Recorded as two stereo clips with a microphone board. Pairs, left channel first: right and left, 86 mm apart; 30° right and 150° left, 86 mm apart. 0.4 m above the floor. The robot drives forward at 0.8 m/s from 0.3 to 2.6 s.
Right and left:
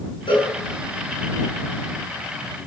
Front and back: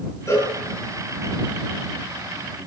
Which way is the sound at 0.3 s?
85° right.